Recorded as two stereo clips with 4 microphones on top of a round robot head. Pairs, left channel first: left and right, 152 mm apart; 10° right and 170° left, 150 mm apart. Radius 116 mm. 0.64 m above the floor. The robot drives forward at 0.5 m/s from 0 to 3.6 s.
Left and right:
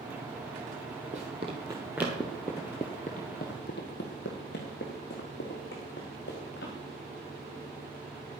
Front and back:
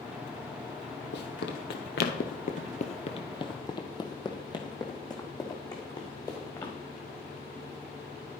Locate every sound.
1.1 s running footsteps: 30° right, 1.3 m; by 6.7 s 55° left, 3.5 m